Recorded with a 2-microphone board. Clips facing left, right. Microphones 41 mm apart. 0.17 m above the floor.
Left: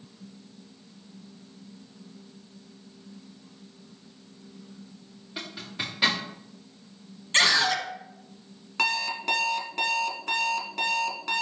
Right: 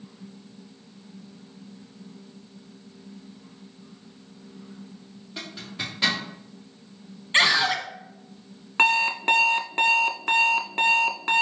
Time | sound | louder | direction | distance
5.4 | a zipper | even | 10° left (ahead or behind) | 2.5 m
7.3 | a scream | right 2 dB | 20° right (ahead or behind) | 1.0 m
8.8 | an alarm clock | right 7 dB | 40° right (ahead or behind) | 0.5 m